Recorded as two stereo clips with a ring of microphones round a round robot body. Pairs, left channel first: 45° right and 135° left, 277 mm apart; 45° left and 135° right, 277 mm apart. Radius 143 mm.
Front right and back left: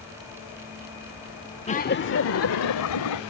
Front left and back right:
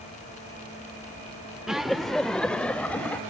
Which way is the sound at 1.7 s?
50° right.